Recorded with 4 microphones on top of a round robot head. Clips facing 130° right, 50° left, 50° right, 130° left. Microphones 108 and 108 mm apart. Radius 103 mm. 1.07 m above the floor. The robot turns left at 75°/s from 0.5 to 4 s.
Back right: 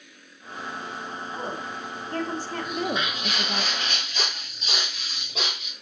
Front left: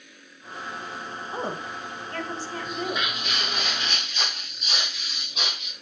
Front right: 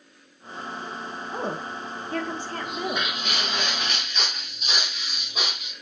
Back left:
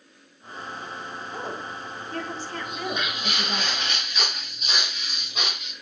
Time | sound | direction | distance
1.3 | a woman speaking | 5° right | 1.9 m
2.6 | footsteps | 50° right | 5 m